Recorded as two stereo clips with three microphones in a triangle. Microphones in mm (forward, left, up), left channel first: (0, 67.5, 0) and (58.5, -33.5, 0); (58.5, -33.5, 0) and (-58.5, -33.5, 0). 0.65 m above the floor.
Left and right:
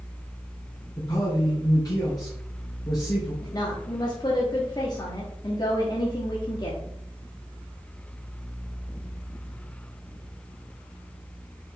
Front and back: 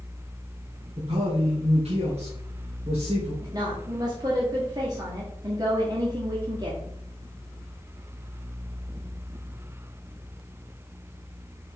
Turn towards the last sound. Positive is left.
turn(degrees=150)